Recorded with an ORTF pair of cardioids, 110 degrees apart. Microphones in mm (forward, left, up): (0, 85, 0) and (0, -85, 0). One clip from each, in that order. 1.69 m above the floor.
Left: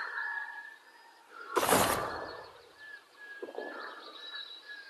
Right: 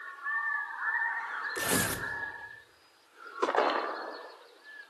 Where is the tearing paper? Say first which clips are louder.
Left 6 dB; 5° right, 2 m.